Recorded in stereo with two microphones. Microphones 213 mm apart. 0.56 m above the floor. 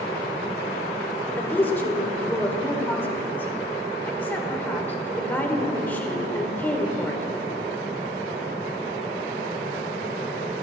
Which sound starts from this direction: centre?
A woman speaking, at 1.3 s.